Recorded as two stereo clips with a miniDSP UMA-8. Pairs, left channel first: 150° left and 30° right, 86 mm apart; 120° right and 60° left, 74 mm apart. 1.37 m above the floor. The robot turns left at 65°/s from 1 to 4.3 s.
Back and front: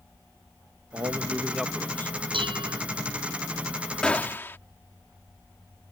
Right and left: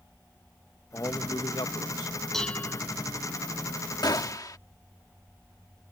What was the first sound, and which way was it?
A man speaking, 75° right.